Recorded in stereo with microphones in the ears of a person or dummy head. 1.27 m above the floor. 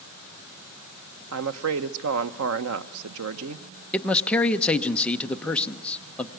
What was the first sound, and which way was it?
A woman speaking, 75° right (ahead or behind).